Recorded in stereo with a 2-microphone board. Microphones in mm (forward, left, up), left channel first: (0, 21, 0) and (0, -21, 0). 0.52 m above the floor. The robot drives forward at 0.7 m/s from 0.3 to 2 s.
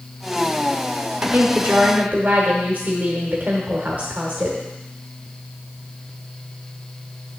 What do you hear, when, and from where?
1.2 s a woman speaking: 55° right (ahead or behind), 1.1 m; by 4.6 s 50° right (ahead or behind), 1.2 m